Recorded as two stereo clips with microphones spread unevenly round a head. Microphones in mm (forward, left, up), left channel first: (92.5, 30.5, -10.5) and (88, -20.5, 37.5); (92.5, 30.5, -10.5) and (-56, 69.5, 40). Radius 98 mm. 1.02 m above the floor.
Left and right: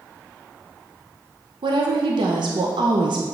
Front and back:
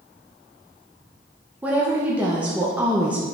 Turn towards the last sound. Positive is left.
turn(degrees=-100)